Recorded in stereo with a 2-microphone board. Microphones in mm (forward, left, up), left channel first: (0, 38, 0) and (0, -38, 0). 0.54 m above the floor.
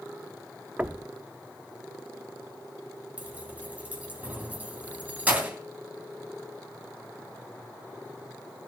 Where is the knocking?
20° right (ahead or behind), 0.5 m.